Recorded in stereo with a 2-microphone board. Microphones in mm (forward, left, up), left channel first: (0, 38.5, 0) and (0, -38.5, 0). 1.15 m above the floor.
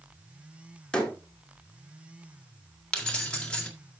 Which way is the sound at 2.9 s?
15° left (ahead or behind).